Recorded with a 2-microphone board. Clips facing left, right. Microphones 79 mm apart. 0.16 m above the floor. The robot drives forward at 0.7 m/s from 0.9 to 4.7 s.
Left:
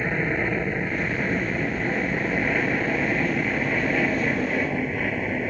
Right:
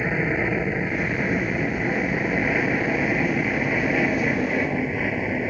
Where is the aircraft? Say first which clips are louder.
Right 1 dB; 5° right (ahead or behind).